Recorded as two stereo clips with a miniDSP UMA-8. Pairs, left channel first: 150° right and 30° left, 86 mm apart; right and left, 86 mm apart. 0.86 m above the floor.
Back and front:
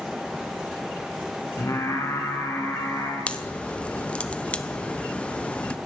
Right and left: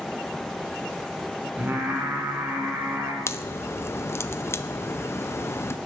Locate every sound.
1.6 s singing: 160° left, 3.5 m
3.3 s a crack: 90° right, 0.6 m